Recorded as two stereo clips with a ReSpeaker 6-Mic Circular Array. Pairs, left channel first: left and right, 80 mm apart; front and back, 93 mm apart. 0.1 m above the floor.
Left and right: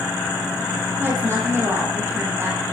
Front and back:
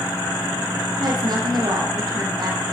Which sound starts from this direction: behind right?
A woman speaking, at 1.0 s.